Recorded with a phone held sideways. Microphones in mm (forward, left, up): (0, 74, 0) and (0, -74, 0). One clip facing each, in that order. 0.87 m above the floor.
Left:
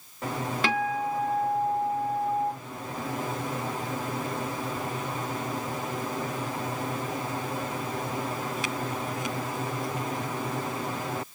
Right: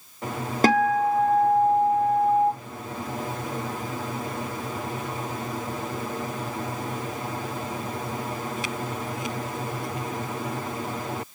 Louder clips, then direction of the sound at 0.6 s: Right 9 dB; 40° right (ahead or behind).